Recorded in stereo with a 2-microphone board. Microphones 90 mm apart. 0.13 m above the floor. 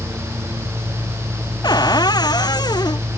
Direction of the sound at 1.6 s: 50° left (ahead or behind).